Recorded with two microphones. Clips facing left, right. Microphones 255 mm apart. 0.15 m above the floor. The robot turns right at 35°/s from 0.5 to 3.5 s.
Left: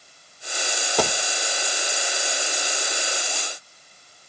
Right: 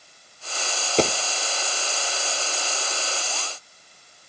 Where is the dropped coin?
20° right (ahead or behind), 0.7 m; by 1.1 s 30° right (ahead or behind), 0.7 m.